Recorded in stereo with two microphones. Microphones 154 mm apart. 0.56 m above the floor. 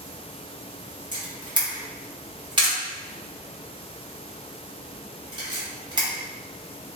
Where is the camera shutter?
30° right (ahead or behind), 0.8 m.